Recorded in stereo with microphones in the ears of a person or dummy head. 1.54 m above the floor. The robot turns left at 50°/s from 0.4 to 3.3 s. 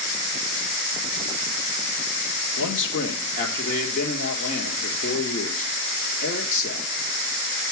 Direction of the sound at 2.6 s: 80° left.